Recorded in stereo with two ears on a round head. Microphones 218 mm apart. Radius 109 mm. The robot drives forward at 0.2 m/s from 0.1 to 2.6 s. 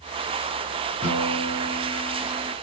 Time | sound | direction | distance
1.0 | a guitar | 5° left (ahead or behind) | 3 m